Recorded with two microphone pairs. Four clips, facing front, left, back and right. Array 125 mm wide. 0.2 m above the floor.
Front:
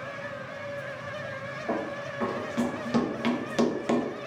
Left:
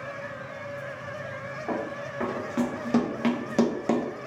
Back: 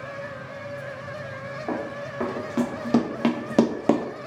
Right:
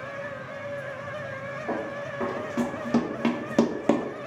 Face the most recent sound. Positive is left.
turn(degrees=-155)